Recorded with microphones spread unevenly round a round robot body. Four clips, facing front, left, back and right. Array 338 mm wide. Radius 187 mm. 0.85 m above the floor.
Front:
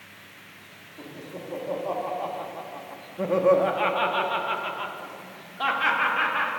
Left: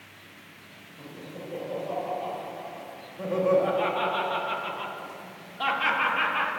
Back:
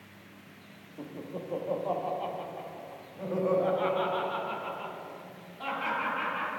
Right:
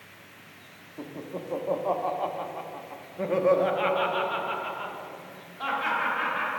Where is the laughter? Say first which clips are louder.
Right 5 dB, even; 75° right, 1.5 m; by 6.5 s 25° left, 2.5 m.